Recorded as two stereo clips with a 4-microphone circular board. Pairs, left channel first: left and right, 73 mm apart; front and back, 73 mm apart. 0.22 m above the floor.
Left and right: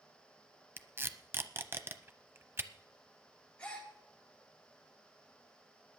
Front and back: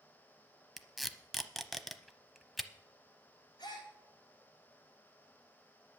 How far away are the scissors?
I don't hear scissors.